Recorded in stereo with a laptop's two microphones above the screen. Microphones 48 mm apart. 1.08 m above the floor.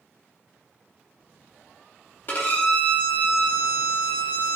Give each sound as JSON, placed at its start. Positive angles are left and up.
{"t": 2.3, "sound": "a violin", "side_deg": 40, "distance_m": 0.9}